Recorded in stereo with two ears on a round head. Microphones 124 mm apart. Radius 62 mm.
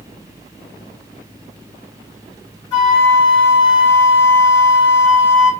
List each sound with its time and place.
2.7 s a flute: 25° left (ahead or behind), 1.4 m